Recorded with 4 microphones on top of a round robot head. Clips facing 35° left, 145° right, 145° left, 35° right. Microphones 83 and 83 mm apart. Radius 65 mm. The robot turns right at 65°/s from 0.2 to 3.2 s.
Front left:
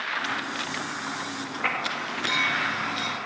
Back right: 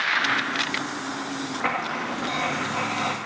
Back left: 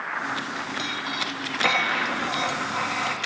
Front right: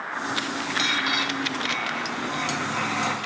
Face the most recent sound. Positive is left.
turn(degrees=-110)